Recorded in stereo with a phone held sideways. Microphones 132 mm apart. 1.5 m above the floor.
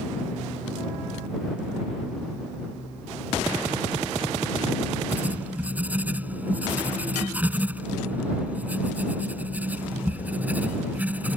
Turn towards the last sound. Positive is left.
turn(degrees=-10)  # may be behind; listen again after turning